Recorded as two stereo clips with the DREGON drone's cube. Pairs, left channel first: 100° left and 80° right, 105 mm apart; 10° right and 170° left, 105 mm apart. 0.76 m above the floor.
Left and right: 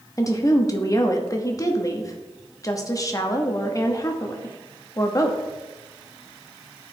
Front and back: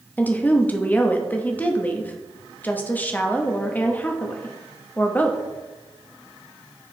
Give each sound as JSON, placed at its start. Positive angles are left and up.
{"t": 0.2, "sound": "a woman speaking", "azimuth_deg": 55, "distance_m": 0.9}